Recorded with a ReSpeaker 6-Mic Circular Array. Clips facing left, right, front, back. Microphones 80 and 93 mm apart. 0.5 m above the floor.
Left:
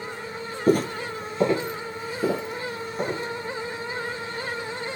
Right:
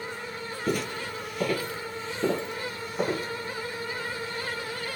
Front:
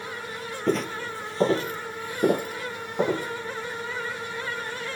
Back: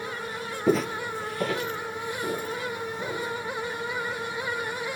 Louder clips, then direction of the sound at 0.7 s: Left 9 dB, back 2 dB; 100° left.